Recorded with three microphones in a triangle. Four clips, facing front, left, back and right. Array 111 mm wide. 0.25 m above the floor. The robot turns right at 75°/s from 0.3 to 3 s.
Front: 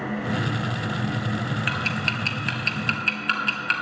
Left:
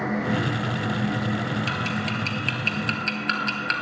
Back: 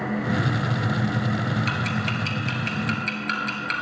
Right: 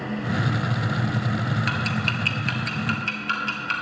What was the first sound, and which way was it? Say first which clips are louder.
Ticking: right 1 dB, back 1 dB; 55° right.